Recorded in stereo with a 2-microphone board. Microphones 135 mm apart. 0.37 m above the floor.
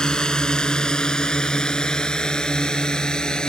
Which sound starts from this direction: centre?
A drone, at 0.0 s.